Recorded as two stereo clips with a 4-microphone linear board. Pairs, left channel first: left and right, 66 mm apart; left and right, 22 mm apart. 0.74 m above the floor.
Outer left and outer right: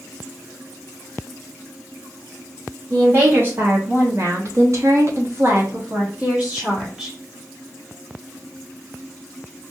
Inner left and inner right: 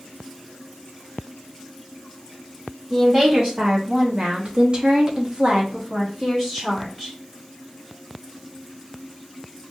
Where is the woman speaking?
30° right (ahead or behind), 1.7 m; by 7.1 s 10° right (ahead or behind), 1.4 m.